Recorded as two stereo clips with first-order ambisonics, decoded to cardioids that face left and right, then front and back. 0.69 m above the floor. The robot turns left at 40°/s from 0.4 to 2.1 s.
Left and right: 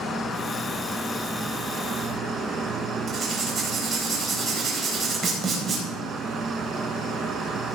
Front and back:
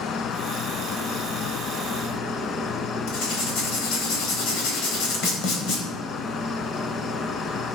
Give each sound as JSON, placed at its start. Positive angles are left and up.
{"t": 0.0, "sound": "an insect", "azimuth_deg": 20, "distance_m": 0.7}
{"t": 3.1, "sound": "writing", "azimuth_deg": -30, "distance_m": 4.0}